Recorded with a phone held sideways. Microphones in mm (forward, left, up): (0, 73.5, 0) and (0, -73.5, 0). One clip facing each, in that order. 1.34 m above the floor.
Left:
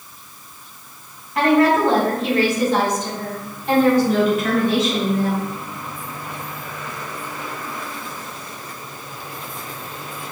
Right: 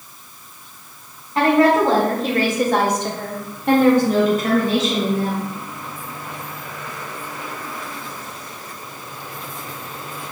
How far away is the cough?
I don't hear a cough.